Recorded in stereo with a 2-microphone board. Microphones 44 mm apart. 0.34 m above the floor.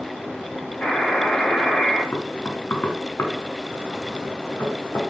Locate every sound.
0.8 s a buzzer: 30° left (ahead or behind), 2.5 m
2.1 s knocking: 55° left (ahead or behind), 1.9 m